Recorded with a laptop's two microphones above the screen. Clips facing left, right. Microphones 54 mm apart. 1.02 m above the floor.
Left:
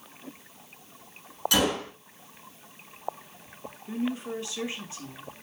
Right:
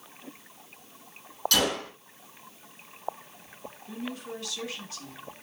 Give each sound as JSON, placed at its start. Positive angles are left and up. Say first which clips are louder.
{"t": 1.5, "sound": "a gunshot", "louder": "left 2 dB", "side_deg": 20, "distance_m": 5.5}
{"t": 3.9, "sound": "a woman speaking", "louder": "left 6 dB", "side_deg": 25, "distance_m": 2.5}